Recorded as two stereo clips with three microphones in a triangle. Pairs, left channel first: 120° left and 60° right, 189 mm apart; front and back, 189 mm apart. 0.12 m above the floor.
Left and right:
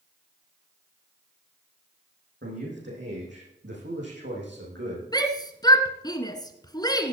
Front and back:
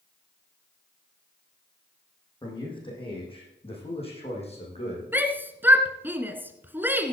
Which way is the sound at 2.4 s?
65° right.